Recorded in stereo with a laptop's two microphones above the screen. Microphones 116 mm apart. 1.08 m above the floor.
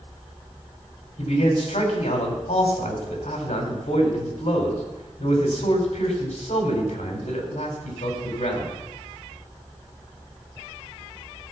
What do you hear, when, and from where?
1.2 s a man speaking: 85° left, 3 m